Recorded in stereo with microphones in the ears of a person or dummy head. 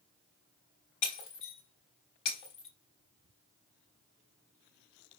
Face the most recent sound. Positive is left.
turn(degrees=25)  # may be behind; listen again after turning